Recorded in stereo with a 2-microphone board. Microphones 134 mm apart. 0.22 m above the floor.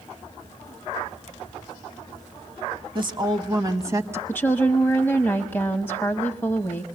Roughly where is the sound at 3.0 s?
Right.